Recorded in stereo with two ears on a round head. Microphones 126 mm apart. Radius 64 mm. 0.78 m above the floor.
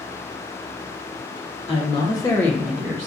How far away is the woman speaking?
About 1.0 m.